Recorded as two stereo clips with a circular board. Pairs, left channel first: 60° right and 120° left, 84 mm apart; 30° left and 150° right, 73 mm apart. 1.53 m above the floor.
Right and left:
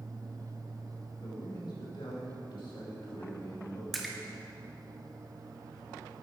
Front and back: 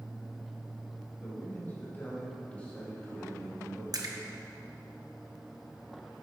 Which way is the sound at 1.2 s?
30° right.